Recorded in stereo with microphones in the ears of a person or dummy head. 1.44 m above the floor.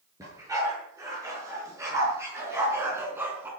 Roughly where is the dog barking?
Right.